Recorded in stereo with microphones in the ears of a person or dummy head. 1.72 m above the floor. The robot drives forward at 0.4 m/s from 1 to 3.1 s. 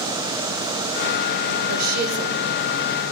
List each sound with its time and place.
1.7 s a woman speaking: 55° right (ahead or behind), 0.8 m; by 2.4 s 40° right (ahead or behind), 1.0 m